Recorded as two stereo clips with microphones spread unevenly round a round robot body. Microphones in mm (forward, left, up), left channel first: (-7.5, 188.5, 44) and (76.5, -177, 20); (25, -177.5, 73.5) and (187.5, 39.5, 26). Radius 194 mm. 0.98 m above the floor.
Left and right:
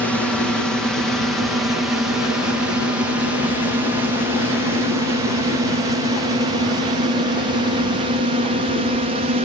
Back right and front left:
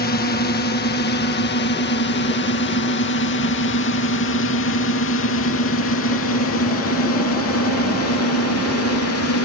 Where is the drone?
165° right; by 9.4 s 145° right.